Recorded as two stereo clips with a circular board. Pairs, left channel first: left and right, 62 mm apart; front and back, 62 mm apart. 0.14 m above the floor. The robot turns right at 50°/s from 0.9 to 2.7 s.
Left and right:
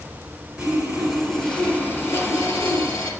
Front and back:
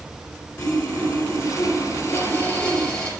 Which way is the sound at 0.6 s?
20° right.